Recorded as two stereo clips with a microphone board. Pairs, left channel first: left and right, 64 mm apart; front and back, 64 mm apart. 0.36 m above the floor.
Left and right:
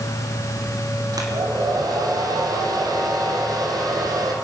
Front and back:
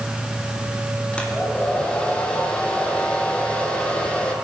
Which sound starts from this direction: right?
A hair dryer, at 1.1 s.